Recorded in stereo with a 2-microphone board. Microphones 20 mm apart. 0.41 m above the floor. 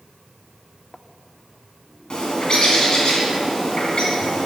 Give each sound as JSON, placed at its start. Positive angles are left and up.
{"t": 2.1, "sound": "a bird", "side_deg": 45, "distance_m": 2.5}